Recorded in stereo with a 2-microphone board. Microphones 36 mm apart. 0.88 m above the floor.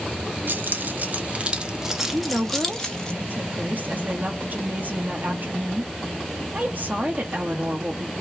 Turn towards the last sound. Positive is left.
turn(degrees=-50)  # may be behind; listen again after turning